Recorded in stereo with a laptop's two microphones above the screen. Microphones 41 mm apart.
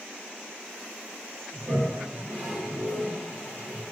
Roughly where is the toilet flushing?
Right.